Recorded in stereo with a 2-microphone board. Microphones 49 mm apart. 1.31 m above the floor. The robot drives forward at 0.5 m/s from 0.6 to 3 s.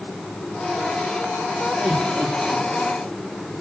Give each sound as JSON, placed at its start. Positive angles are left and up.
{"t": 1.8, "sound": "laughter", "side_deg": -50, "distance_m": 3.5}